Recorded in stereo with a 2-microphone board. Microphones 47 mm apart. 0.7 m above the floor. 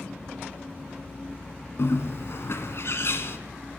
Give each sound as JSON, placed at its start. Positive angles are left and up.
{"t": 1.8, "sound": "a bird", "side_deg": 65, "distance_m": 1.2}